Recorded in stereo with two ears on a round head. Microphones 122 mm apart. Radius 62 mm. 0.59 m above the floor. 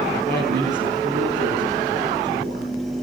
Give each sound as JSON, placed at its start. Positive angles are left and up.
{"t": 0.3, "sound": "a man speaking", "side_deg": -70, "distance_m": 9.0}